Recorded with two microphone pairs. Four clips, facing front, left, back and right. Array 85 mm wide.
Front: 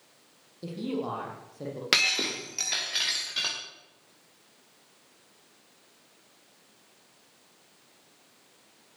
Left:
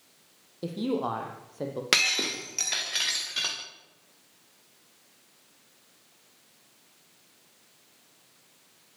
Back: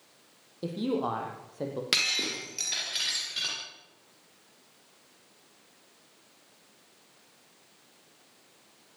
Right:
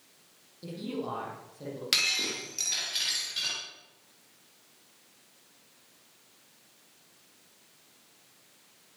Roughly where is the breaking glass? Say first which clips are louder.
Left 6 dB, front 4 dB; ahead left.